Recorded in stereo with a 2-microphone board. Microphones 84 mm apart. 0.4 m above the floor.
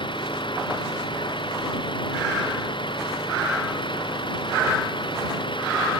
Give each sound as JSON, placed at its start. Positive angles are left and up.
{"t": 0.0, "sound": "an engine running", "side_deg": 80}